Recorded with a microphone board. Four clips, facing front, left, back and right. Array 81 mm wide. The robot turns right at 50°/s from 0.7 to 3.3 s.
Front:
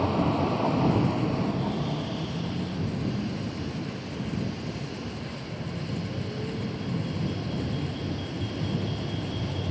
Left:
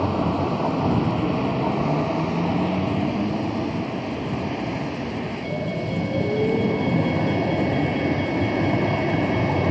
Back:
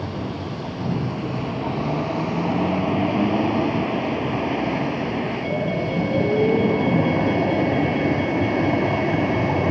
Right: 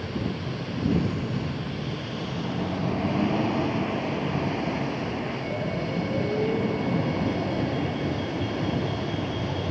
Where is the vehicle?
70° left; by 9.7 s 150° left.